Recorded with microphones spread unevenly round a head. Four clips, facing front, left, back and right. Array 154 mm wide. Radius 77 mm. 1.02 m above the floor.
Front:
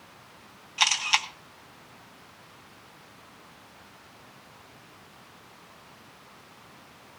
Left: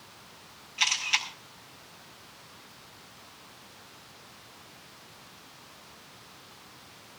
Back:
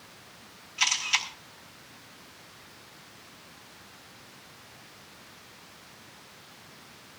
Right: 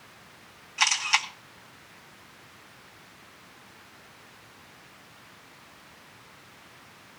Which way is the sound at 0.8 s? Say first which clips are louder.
Right 5 dB, front 4 dB; 20° right.